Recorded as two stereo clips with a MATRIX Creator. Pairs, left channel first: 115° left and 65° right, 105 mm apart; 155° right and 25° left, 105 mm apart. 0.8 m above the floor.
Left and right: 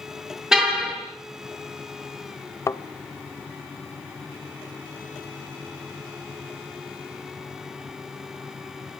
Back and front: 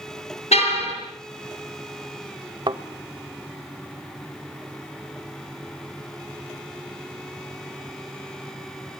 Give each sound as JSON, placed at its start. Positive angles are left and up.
{"t": 0.5, "sound": "a car horn", "azimuth_deg": -155, "distance_m": 6.5}
{"t": 2.7, "sound": "a thud", "azimuth_deg": 60, "distance_m": 0.8}